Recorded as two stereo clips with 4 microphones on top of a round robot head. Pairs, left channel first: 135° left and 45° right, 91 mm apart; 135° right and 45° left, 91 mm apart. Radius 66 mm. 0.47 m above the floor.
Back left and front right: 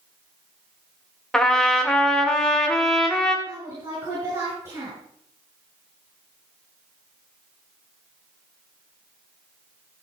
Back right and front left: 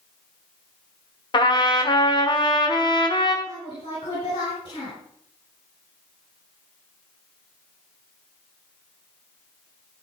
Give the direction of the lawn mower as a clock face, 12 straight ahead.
No lawn mower in this recording.